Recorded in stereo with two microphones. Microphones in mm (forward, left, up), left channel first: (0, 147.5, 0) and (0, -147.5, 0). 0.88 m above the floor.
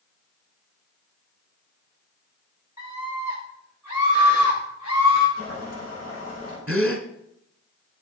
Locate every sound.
2.8 s a scream: 80° left, 3.5 m; by 5.3 s 70° left (ahead or behind), 5 m
5.4 s boiling: 55° left (ahead or behind), 6 m
6.7 s a gasp: 45° right (ahead or behind), 1.4 m